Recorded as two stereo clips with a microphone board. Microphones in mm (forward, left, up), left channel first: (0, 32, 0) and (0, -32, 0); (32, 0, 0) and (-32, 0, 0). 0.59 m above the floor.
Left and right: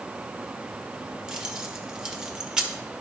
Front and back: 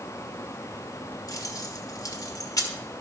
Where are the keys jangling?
10° right, 1.3 m.